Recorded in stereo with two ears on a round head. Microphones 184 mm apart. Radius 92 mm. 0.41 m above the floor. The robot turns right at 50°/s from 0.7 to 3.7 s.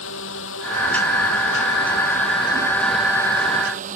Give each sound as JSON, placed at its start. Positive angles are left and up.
{"t": 0.0, "sound": "a drone", "azimuth_deg": 70}